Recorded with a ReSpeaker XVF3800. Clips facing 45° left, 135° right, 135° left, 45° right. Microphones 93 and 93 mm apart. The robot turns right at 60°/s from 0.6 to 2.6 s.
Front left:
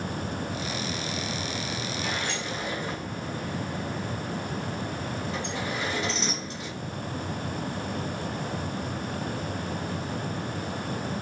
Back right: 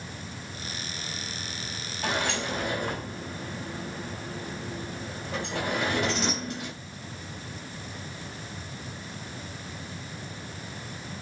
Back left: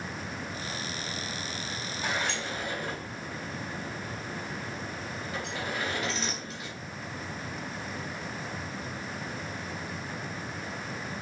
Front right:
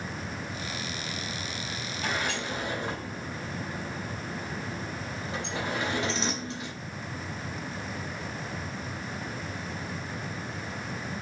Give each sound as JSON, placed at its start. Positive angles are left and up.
{"t": 2.0, "sound": "a sliding door", "azimuth_deg": -140, "distance_m": 3.5}